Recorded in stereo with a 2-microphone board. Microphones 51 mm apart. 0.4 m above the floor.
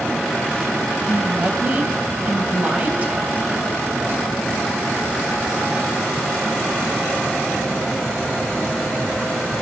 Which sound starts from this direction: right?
A woman speaking, at 1.1 s.